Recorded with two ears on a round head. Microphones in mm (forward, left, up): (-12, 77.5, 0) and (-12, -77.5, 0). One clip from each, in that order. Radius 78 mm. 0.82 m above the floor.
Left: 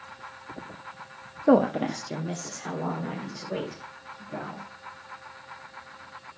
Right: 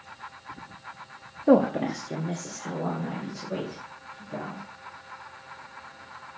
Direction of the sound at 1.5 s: 20° left (ahead or behind).